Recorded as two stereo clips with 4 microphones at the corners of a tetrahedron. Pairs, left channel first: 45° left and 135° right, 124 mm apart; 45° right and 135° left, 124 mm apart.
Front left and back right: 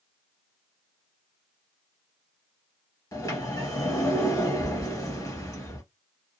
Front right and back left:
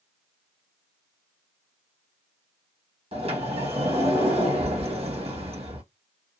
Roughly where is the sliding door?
Left.